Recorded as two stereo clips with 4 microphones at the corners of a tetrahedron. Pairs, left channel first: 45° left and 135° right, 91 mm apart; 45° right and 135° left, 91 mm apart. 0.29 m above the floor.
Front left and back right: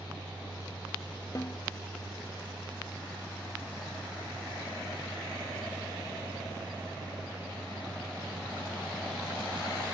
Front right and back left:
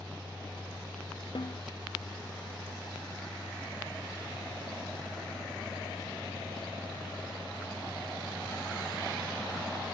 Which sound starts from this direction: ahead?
A snare drum, at 1.4 s.